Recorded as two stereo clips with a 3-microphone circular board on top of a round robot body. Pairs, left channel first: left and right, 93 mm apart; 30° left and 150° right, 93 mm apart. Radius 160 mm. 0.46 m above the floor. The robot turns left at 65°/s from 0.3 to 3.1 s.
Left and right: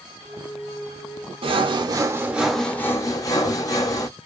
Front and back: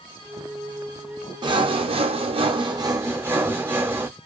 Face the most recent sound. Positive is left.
turn(degrees=145)